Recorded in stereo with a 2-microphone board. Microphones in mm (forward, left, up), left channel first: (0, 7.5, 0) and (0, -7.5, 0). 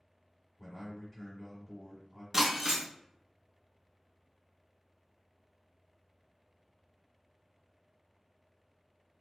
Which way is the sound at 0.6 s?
15° right (ahead or behind).